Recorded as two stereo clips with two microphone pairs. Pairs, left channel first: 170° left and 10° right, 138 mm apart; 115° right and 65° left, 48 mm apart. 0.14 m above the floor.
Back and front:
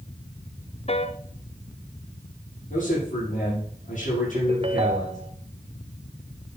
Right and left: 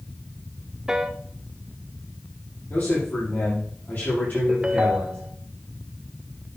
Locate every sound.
0.9 s a piano: 140° left, 0.7 m
2.7 s a man speaking: 170° right, 6 m
4.3 s a ringtone: 5° left, 0.9 m